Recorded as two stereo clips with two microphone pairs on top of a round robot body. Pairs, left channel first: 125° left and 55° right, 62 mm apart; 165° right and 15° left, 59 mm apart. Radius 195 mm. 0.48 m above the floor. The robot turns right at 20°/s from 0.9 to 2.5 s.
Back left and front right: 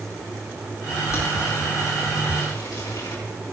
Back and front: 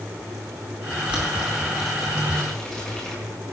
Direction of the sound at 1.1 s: 85° left.